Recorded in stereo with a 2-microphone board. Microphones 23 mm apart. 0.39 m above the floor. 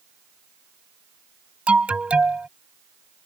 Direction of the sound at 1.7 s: 65° right (ahead or behind).